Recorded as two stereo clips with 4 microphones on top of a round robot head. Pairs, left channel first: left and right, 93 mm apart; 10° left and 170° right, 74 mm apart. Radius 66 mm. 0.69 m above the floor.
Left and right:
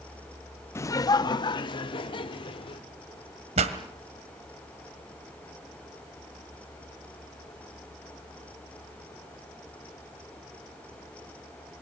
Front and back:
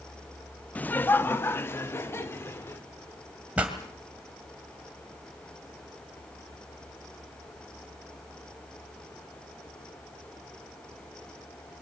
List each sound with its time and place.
0.8 s laughter: 60° left, 0.6 m; by 2.8 s 65° left, 2 m
3.6 s a pop: 95° right, 2 m